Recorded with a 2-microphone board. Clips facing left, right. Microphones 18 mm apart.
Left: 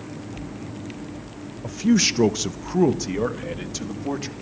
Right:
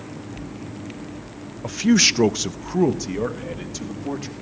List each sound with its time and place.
1.6 s a man speaking: 35° right (ahead or behind), 0.6 m; by 4.3 s 15° left (ahead or behind), 2 m